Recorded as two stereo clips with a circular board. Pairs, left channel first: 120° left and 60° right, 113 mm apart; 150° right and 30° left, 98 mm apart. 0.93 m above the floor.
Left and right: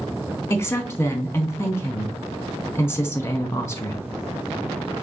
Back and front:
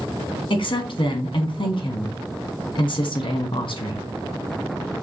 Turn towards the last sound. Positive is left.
turn(degrees=-175)